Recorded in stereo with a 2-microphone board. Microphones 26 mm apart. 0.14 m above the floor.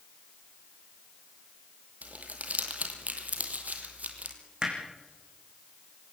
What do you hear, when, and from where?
2.0 s crumpling: 70° right (ahead or behind), 3 m
4.6 s hammering: 35° right (ahead or behind), 5.5 m